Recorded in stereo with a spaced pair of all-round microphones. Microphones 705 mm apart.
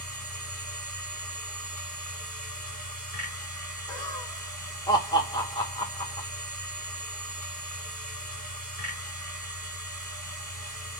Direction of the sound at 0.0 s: 20° right (ahead or behind).